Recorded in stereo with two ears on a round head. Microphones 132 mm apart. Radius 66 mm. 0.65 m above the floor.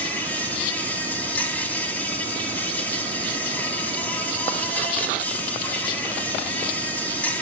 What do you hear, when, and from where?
0.0 s an insect: 10° left (ahead or behind), 1.3 m